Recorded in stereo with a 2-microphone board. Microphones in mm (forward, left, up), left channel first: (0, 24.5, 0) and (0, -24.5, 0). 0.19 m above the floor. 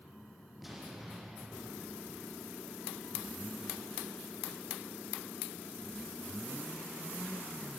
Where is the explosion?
5° right (ahead or behind), 10 m.